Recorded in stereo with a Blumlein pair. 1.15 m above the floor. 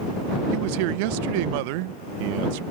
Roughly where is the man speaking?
Ahead right.